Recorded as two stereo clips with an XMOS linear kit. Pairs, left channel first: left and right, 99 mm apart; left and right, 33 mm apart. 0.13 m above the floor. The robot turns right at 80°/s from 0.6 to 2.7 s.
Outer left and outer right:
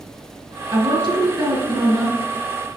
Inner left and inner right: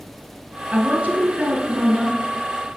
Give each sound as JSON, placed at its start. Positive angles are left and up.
{"t": 0.7, "sound": "a woman speaking", "azimuth_deg": -120, "distance_m": 1.5}